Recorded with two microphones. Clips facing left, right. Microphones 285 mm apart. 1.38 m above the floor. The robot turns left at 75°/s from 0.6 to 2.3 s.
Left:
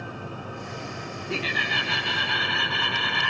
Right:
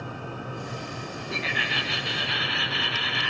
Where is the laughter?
145° left, 0.8 m; by 3.3 s 70° left, 0.8 m.